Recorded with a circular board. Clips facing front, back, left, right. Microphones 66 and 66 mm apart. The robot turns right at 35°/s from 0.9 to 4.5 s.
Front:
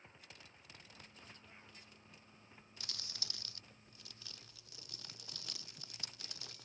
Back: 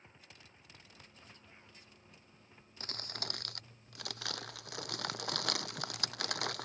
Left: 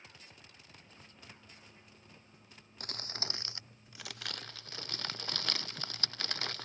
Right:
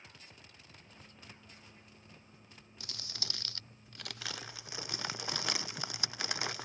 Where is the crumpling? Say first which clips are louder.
Back 10 dB, left 5 dB; 130° left; by 6.7 s 170° right.